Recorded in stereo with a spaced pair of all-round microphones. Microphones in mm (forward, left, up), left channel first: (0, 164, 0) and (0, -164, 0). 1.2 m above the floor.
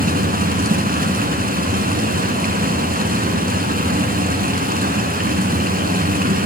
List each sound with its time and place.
0.0 s running water: 25° right (ahead or behind), 3.5 m